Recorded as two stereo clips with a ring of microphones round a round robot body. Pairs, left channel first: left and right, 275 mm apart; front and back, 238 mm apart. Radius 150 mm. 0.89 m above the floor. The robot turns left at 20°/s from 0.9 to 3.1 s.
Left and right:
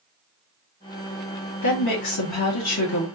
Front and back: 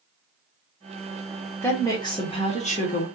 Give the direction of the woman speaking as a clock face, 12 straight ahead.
9 o'clock.